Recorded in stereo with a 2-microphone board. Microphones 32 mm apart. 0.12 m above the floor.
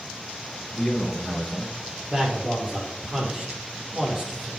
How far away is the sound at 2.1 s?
About 4.5 m.